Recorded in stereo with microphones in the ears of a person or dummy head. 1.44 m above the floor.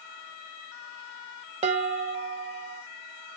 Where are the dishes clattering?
35° right (ahead or behind), 0.8 m.